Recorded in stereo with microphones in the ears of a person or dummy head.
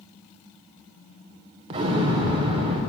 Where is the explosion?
35° right (ahead or behind), 0.7 m.